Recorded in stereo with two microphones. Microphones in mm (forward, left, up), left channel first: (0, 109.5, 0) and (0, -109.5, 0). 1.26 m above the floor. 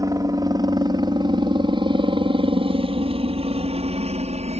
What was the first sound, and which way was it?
A helicopter, 15° right (ahead or behind).